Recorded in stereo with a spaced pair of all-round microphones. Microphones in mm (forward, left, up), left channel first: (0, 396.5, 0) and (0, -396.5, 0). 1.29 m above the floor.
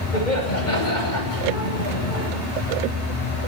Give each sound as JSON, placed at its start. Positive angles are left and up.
{"t": 0.1, "sound": "laughter", "side_deg": 65, "distance_m": 9.0}